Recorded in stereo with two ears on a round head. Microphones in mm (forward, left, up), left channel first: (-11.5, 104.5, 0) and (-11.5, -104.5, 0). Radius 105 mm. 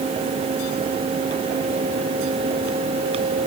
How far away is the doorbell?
I don't hear a doorbell.